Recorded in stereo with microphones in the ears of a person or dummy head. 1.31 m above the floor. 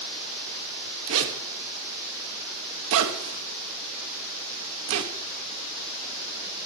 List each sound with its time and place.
1.1 s a zipper: 85° right, 1.6 m